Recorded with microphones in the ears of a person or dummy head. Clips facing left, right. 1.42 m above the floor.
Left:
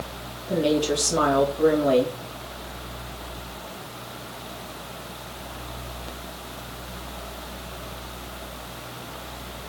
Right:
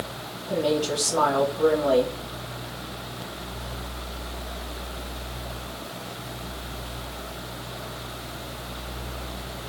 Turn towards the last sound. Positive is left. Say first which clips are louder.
# left 2 dB
turn(degrees=25)  # may be behind; listen again after turning